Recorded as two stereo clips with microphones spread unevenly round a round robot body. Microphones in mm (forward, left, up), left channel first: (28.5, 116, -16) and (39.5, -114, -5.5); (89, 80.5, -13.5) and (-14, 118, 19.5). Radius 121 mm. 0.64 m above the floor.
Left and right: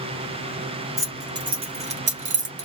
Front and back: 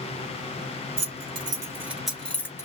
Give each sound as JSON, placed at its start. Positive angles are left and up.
{"t": 1.0, "sound": "keys jangling", "azimuth_deg": -165, "distance_m": 0.8}